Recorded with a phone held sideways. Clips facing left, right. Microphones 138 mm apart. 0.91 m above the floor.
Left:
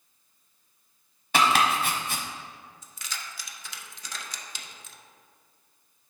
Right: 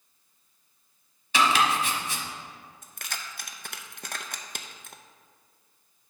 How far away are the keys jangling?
About 0.5 m.